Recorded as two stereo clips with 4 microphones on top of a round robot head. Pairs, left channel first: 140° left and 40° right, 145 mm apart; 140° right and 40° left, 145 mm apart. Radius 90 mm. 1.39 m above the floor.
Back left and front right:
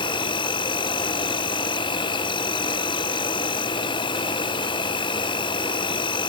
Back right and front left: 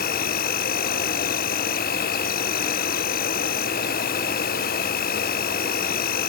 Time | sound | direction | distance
0.0 | an insect | 160° right | ?